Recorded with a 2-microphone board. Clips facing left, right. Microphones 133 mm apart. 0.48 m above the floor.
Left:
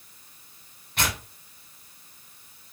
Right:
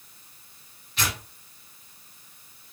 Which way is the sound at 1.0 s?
50° left (ahead or behind).